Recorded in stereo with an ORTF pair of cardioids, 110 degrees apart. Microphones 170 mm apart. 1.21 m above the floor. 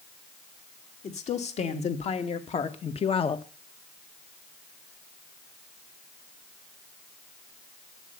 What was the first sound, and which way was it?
A woman speaking, 40° left.